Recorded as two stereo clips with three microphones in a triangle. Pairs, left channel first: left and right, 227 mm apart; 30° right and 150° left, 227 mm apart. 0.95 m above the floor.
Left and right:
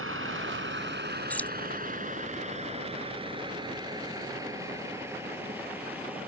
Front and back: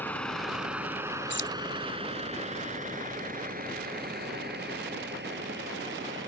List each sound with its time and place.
0.0 s a vehicle: 110° right; by 6.3 s 175° right
1.3 s keys jangling: 5° left